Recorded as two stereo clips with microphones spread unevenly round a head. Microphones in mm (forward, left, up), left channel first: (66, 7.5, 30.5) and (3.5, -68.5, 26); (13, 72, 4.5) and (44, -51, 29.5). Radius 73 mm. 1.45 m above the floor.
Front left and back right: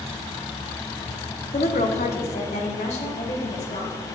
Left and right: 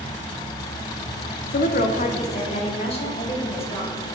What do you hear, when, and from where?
1.5 s a woman speaking: 90° left, 0.7 m; by 4.0 s 60° left, 3 m